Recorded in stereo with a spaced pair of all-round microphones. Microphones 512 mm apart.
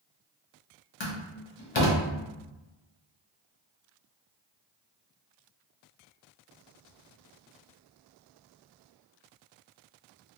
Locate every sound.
1.0 s a door slam: 55° left (ahead or behind), 0.7 m